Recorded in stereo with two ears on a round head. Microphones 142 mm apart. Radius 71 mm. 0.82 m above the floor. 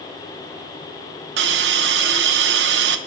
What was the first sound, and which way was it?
A hiss, 80° right.